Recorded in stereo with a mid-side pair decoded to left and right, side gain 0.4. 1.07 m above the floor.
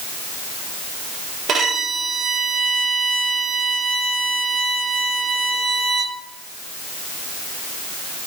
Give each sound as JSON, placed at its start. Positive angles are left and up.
{"t": 1.5, "sound": "a violin", "azimuth_deg": -65, "distance_m": 2.0}